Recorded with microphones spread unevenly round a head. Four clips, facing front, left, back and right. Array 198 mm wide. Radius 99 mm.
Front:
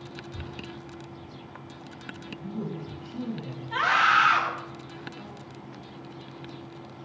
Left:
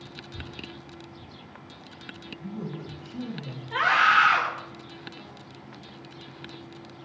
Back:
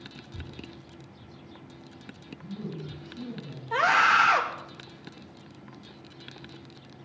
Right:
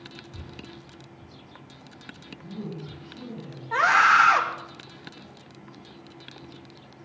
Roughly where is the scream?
Behind right.